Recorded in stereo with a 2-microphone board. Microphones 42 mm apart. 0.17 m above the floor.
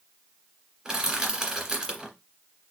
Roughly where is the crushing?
Centre.